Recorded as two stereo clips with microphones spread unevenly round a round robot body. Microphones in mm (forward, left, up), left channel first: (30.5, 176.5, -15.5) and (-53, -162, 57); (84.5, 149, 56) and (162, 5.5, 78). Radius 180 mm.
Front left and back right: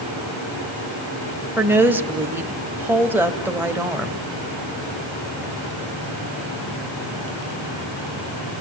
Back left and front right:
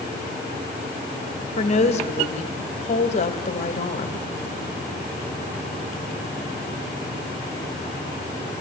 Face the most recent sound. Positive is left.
turn(degrees=170)